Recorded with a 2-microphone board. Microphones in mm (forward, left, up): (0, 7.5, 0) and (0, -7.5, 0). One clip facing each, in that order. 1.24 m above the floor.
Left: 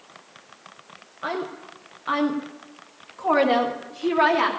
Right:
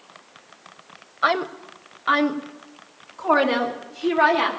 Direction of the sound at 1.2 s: 60° right (ahead or behind).